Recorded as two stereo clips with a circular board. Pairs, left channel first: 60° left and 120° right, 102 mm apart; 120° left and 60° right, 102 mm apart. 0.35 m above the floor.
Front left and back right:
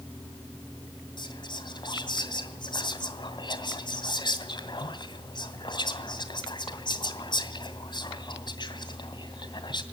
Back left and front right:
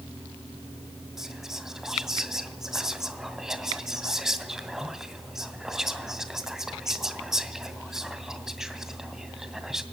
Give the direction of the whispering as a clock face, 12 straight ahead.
11 o'clock.